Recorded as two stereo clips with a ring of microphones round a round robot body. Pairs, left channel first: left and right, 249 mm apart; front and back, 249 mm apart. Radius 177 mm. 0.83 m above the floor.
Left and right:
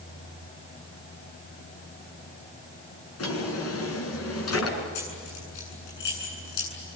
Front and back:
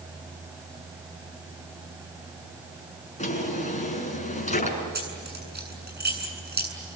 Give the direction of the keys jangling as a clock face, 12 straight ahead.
8 o'clock.